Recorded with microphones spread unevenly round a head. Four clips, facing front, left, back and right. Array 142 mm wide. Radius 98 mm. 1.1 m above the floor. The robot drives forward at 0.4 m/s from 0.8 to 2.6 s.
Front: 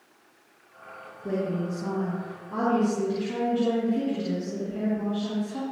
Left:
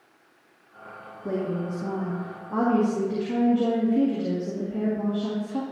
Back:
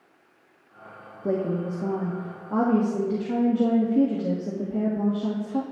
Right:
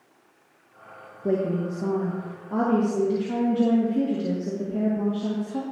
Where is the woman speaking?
140° right, 1.3 m; by 5.6 s 150° right, 1.7 m.